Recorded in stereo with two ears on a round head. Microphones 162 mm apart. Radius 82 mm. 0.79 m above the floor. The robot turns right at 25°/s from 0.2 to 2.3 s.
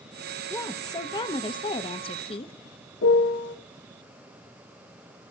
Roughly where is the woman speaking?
Ahead left.